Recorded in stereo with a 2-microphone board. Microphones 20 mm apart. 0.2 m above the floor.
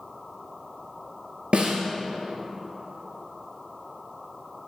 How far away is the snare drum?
About 1.3 m.